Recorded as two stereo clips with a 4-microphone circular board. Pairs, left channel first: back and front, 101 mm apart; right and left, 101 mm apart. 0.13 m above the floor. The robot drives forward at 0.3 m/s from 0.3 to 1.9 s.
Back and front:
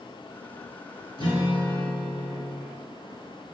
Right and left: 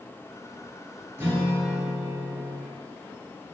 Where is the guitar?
150° left, 1.3 m; by 2.6 s 155° left, 1.5 m.